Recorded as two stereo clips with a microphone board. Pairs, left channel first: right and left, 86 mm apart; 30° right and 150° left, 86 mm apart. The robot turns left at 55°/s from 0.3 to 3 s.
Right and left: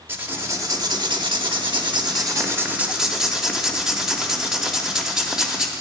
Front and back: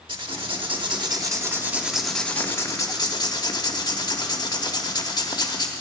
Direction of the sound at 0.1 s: 155° left.